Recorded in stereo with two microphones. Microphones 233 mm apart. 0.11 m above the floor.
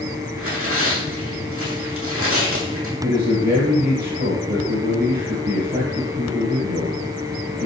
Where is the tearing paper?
75° right (ahead or behind), 2 m.